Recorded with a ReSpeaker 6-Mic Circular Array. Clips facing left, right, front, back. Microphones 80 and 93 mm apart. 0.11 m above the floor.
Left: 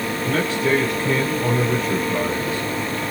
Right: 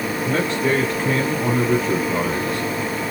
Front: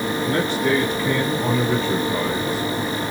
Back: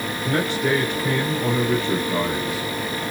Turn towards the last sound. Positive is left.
turn(degrees=-90)